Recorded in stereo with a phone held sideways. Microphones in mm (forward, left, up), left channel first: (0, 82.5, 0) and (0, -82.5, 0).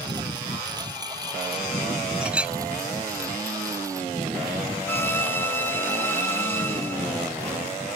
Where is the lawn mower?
25° right (ahead or behind); by 8.0 s 15° right (ahead or behind).